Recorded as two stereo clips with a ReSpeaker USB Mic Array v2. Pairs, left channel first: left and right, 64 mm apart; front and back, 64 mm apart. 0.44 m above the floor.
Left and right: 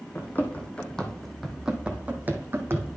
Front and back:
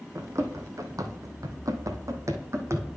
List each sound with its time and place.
0.1 s running footsteps: 145° left, 1.2 m; by 3.0 s 135° right, 1.3 m